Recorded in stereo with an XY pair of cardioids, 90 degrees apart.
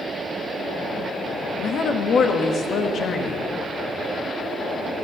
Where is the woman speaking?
65° left, 1.7 m.